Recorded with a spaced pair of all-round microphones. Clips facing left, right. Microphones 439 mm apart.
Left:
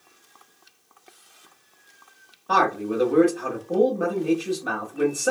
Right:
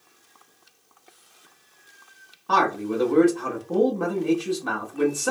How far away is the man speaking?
About 0.8 m.